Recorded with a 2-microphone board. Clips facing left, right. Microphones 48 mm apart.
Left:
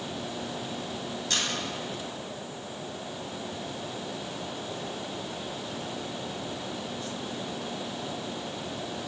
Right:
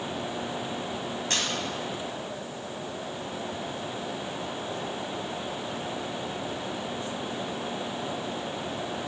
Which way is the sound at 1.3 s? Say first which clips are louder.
Even; 45° right (ahead or behind).